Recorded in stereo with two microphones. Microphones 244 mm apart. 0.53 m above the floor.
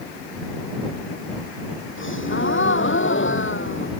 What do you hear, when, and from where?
2.0 s a gasp: 55° left (ahead or behind)